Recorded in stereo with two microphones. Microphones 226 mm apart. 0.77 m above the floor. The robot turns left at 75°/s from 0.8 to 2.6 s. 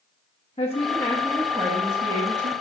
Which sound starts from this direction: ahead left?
A woman speaking, at 0.6 s.